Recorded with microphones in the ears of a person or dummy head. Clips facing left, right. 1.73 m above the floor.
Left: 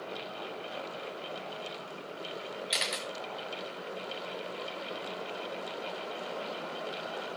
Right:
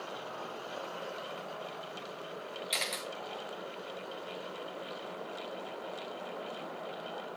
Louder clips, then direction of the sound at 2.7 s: Left 2 dB; 5° left (ahead or behind).